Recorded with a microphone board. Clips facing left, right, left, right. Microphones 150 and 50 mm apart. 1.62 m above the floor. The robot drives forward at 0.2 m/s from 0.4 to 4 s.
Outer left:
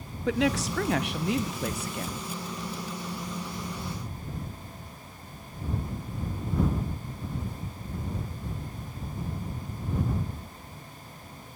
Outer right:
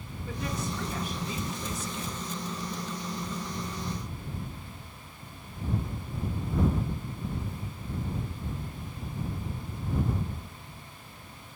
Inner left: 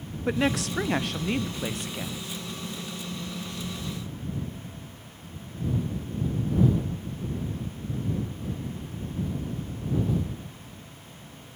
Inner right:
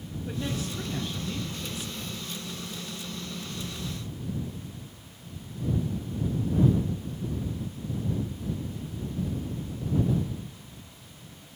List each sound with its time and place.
0.3 s a woman speaking: 85° left, 0.6 m; by 2.3 s 55° left (ahead or behind), 0.7 m